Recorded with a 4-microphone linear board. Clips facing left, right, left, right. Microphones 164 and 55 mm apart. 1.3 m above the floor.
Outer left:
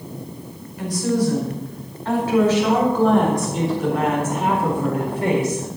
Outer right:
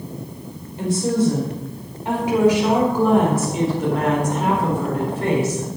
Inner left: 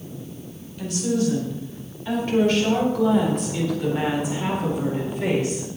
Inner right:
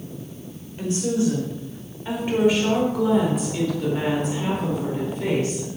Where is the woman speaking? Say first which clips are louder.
Outer right 1 dB, inner right 1 dB; 30° right (ahead or behind), 5 m; by 5.7 s 20° left (ahead or behind), 4.5 m.